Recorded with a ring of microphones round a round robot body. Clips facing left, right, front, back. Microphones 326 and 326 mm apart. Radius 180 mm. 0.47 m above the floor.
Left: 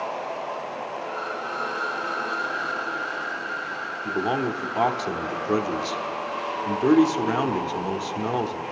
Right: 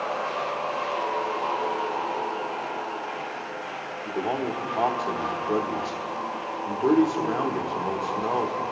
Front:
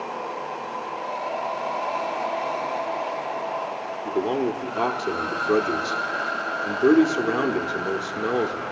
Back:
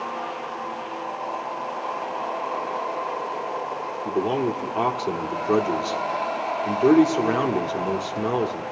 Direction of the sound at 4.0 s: 95° left.